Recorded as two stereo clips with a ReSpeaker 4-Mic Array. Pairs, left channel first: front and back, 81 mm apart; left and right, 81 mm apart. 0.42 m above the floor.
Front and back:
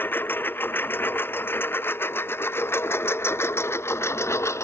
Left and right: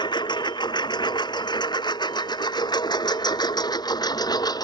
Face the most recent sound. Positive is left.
turn(degrees=55)